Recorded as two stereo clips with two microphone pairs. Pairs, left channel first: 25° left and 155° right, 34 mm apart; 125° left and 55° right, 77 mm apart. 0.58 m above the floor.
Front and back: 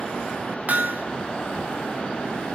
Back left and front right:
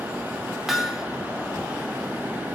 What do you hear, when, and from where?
0.7 s hammering: 140° right, 1.6 m